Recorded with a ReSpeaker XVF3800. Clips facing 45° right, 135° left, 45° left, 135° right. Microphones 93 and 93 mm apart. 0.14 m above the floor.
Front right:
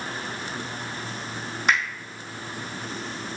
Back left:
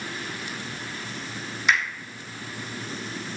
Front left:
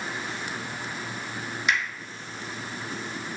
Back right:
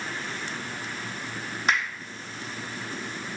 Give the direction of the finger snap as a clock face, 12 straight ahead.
3 o'clock.